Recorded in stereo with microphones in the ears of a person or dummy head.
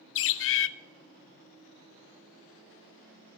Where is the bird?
65° left (ahead or behind), 0.6 m.